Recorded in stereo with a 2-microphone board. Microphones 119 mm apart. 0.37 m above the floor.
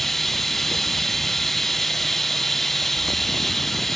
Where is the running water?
Centre (ahead or behind).